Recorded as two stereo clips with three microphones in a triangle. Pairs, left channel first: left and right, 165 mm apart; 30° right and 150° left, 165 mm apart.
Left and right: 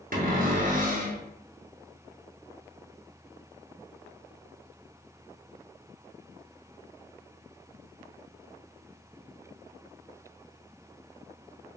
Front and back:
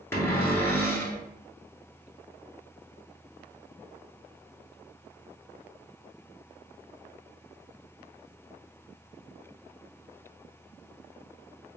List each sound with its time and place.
0.1 s a cupboard door: 105° right, 0.8 m